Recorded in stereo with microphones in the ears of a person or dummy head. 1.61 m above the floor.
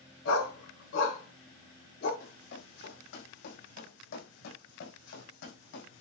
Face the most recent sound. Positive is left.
turn(degrees=75)  # may be behind; listen again after turning